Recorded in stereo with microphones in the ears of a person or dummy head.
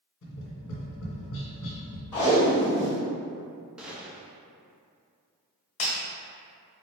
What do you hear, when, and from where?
0.2 s tapping: 70° left (ahead or behind), 1.2 m
2.1 s tape being pulled: 5° left (ahead or behind), 0.8 m
3.8 s a gunshot: 5° right (ahead or behind), 0.5 m
5.8 s breaking glass: 25° left (ahead or behind), 0.9 m